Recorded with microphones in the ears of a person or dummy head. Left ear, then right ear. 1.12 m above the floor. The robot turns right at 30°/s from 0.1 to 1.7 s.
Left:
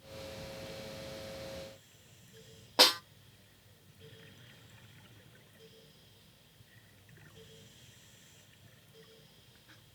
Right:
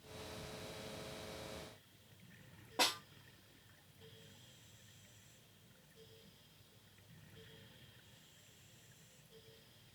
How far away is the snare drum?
About 0.8 m.